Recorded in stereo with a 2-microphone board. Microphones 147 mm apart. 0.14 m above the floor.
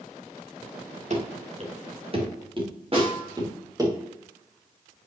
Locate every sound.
1.1 s running footsteps: 50° right (ahead or behind), 3 m; by 3.9 s 25° right (ahead or behind), 3.5 m
2.9 s a snare drum: 40° right (ahead or behind), 4.5 m